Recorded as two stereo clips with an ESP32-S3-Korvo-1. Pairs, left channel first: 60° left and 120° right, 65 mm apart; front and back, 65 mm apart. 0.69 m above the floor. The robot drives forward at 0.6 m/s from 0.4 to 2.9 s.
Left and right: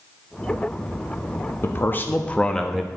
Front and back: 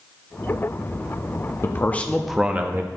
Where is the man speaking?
25° left, 0.6 m; by 2.9 s 155° left, 0.6 m.